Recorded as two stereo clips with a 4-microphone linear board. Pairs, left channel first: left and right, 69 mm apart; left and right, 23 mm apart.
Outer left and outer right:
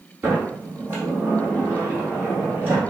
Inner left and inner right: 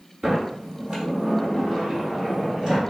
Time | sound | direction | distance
0.2 | a sliding door | 25° right (ahead or behind) | 1.9 m